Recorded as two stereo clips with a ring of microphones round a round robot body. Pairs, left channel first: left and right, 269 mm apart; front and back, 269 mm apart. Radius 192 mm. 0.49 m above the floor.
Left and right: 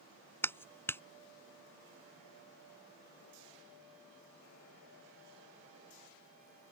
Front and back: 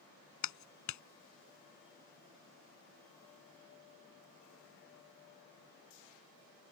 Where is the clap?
10° left.